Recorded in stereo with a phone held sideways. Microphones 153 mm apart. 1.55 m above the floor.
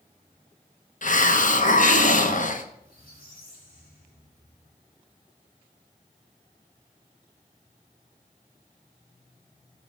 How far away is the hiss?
About 1.0 m.